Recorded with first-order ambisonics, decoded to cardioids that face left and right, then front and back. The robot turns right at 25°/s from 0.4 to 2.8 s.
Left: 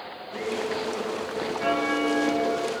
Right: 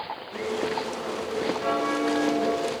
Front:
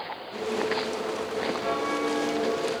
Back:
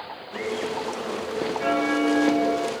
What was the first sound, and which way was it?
A bell, 140° left.